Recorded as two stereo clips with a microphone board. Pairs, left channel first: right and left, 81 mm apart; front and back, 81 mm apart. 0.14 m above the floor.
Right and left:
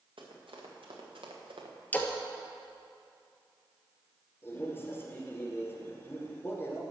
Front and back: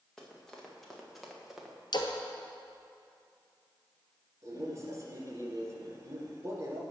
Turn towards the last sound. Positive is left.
turn(degrees=-145)